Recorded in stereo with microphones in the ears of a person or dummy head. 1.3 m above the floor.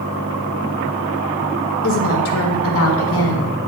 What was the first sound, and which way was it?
A woman speaking, 70° left (ahead or behind).